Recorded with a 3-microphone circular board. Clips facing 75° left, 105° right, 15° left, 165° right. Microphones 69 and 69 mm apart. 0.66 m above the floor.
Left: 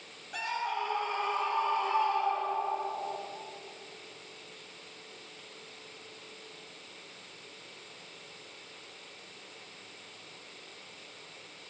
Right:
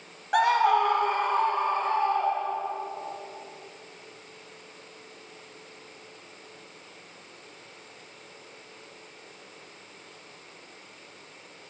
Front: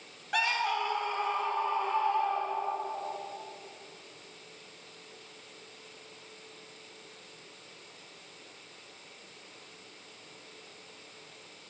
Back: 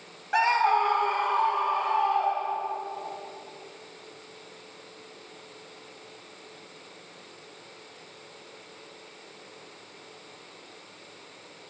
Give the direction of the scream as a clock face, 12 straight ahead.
3 o'clock.